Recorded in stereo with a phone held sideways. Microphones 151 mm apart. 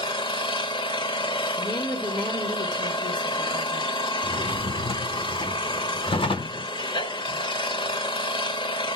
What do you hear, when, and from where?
0.0 s an engine running: 35° left (ahead or behind), 1.3 m
1.6 s a woman speaking: 30° left (ahead or behind), 4 m
4.2 s a drawer: 35° left (ahead or behind), 1.0 m